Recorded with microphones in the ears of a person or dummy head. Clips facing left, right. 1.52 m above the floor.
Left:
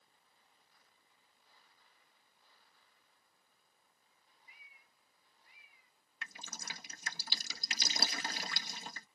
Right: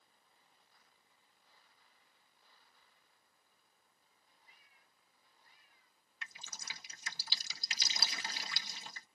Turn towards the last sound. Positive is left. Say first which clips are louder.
# left 4 dB
turn(degrees=45)  # may be behind; listen again after turning